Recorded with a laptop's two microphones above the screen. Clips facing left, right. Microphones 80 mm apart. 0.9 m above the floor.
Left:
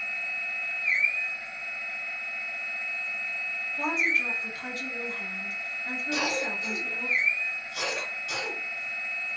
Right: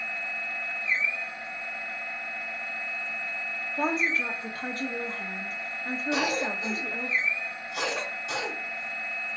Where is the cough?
25° right (ahead or behind), 1.1 m.